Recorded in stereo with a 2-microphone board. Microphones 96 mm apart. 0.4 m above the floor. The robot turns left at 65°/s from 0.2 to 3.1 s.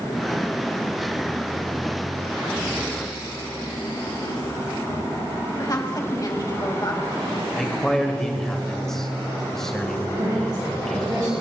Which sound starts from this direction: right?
A woman speaking, at 10.2 s.